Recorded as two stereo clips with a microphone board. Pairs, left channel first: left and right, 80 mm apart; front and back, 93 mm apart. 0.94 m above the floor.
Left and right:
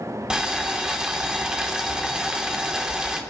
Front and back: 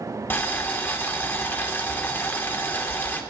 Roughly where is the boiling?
Ahead right.